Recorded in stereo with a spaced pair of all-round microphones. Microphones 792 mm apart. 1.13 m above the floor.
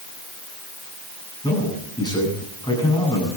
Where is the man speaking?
5° left (ahead or behind), 9.5 m.